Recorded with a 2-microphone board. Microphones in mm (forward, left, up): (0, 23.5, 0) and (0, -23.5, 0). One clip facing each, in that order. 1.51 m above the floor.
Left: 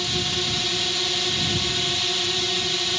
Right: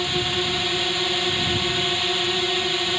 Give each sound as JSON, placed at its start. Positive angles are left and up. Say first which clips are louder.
{"t": 0.0, "sound": "a drone", "louder": "right 3 dB", "side_deg": -20}